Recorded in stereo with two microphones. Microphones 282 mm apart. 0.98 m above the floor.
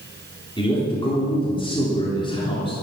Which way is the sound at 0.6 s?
15° left (ahead or behind).